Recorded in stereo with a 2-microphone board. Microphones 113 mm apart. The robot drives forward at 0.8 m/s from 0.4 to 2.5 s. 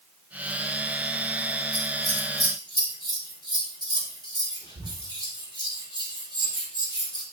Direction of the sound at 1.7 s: 50° left (ahead or behind).